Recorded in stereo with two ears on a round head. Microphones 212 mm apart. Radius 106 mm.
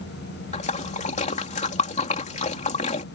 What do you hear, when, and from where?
0.5 s a splash: 30° left (ahead or behind)